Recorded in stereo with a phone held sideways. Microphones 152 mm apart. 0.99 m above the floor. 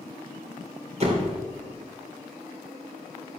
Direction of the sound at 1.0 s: 45° right (ahead or behind).